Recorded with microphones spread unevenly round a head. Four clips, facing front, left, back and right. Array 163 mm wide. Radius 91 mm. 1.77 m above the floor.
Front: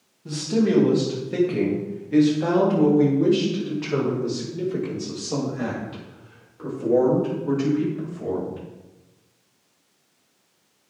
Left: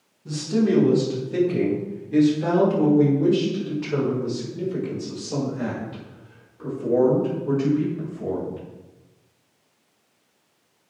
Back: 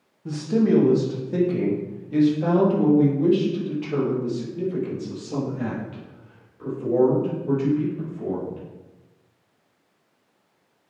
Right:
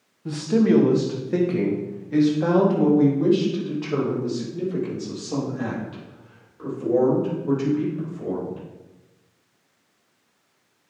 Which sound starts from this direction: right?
A man speaking, at 0.2 s.